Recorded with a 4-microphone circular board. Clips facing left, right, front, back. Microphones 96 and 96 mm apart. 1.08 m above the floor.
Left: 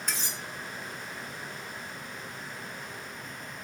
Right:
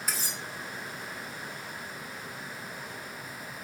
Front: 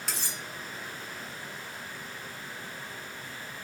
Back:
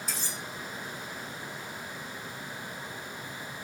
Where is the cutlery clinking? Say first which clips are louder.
Even, even; 5° right, 3 m.